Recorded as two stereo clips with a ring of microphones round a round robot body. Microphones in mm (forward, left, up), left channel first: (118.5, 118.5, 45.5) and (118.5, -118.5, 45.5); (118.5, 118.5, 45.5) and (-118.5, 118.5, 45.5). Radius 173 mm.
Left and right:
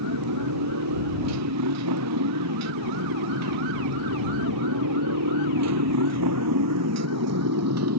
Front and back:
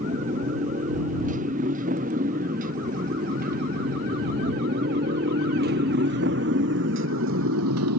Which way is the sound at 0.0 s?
110° right.